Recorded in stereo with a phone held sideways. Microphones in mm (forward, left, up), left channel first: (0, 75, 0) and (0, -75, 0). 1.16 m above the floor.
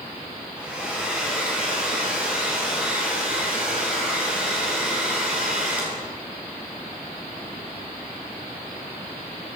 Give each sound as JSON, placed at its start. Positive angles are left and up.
{"t": 0.6, "sound": "a hair dryer", "side_deg": -10, "distance_m": 9.5}